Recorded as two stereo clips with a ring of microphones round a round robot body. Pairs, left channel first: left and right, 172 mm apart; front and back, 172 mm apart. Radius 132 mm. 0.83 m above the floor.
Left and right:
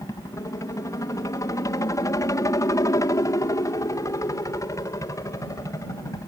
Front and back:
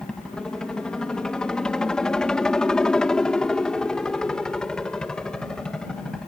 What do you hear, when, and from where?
0.0 s a helicopter: 80° left